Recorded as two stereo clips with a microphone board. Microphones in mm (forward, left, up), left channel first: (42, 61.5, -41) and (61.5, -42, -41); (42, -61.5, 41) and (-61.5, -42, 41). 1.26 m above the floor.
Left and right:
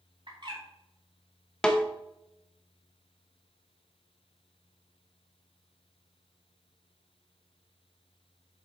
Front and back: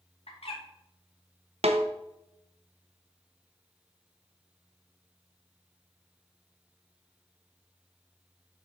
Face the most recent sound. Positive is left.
turn(degrees=-175)